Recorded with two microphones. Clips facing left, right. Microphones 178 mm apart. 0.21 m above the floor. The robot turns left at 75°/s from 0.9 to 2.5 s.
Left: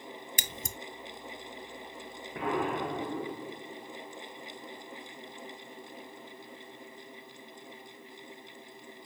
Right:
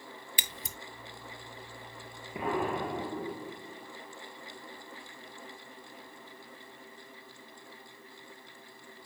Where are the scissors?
45° left (ahead or behind), 0.7 m.